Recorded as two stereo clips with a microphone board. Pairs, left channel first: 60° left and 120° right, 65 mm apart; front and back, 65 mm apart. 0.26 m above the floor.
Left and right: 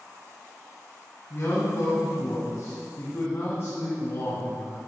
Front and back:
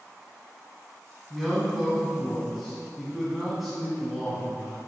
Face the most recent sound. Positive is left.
turn(degrees=95)